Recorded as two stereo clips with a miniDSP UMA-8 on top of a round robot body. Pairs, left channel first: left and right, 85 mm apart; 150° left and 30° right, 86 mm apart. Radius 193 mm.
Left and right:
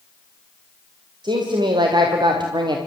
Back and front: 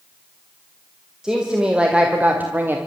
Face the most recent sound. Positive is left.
turn(degrees=-90)